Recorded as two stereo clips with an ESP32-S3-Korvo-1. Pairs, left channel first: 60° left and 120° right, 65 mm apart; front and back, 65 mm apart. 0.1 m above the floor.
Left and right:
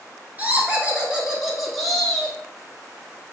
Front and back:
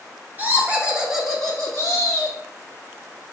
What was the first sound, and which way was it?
Laughter, 150° right.